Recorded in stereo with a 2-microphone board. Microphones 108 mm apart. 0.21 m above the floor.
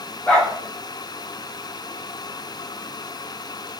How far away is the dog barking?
About 8.5 m.